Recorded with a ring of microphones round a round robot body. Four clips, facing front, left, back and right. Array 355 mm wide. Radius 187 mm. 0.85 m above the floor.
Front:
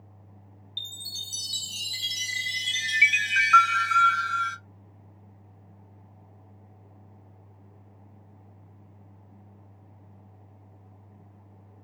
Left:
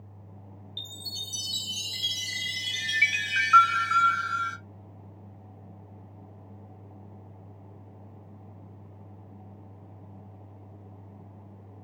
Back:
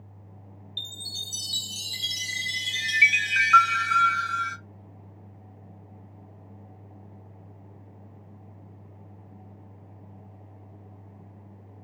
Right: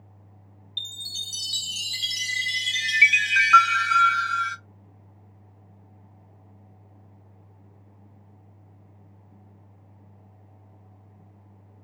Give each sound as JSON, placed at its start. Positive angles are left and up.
{"t": 0.8, "sound": "a chime", "azimuth_deg": -85, "distance_m": 0.9}